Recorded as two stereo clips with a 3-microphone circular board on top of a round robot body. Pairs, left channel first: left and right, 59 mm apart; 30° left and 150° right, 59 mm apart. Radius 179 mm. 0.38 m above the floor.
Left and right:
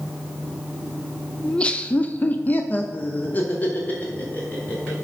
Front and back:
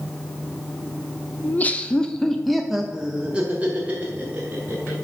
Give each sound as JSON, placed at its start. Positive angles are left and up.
{"t": 1.4, "sound": "laughter", "azimuth_deg": 30, "distance_m": 0.9}